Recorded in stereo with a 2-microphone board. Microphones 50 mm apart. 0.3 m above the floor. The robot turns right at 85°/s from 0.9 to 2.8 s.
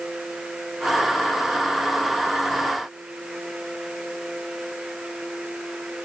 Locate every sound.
Only background noise.